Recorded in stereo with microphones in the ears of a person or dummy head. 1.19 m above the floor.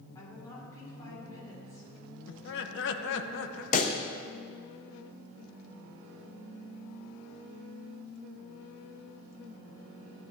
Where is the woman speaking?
20° left (ahead or behind), 4 m.